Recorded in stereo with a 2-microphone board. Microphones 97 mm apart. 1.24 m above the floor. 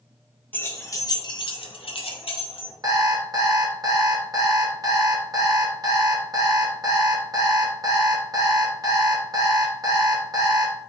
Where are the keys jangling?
20° left (ahead or behind), 0.7 m; by 2.7 s 60° left (ahead or behind), 0.9 m.